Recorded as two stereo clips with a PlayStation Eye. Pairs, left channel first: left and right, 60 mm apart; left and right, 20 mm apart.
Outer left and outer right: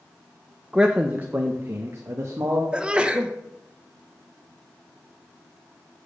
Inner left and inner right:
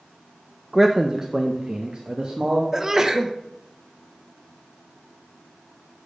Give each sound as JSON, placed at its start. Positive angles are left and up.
{"t": 0.7, "sound": "a man speaking", "side_deg": -10, "distance_m": 0.6}
{"t": 2.7, "sound": "a sneeze", "side_deg": -15, "distance_m": 0.9}